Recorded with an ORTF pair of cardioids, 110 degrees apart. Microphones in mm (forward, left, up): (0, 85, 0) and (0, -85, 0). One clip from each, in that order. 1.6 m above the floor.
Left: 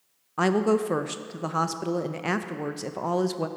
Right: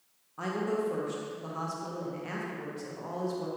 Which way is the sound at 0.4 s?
65° left.